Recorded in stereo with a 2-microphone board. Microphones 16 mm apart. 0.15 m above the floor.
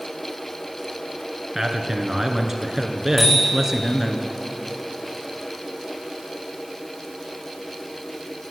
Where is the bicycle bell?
20° left (ahead or behind), 9 m.